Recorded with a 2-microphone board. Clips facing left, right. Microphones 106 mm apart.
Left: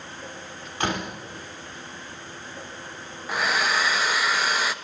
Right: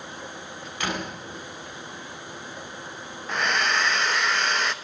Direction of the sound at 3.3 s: 5° left (ahead or behind).